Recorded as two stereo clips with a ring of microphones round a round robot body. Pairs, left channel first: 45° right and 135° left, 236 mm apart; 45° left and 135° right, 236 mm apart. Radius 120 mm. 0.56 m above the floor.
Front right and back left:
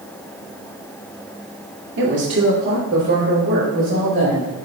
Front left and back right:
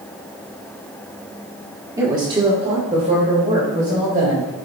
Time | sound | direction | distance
2.0 | a woman speaking | 150° left | 1.2 m